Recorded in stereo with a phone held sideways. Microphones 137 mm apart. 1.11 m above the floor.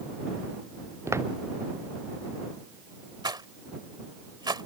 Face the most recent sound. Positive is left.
turn(degrees=-30)  # may be behind; listen again after turning